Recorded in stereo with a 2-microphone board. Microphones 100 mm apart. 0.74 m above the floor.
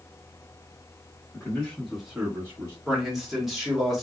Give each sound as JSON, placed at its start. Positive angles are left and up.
{"t": 1.3, "sound": "a man speaking", "side_deg": 20, "distance_m": 1.6}
{"t": 2.9, "sound": "a man speaking", "side_deg": -5, "distance_m": 1.4}